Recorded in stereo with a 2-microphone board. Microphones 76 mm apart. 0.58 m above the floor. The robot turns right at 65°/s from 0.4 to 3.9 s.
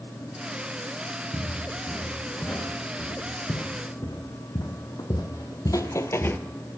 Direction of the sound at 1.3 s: 50° right (ahead or behind).